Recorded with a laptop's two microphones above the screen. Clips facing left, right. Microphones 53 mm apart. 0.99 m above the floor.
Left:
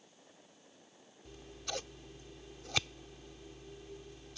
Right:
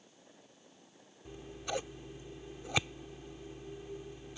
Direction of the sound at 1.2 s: 15° right (ahead or behind).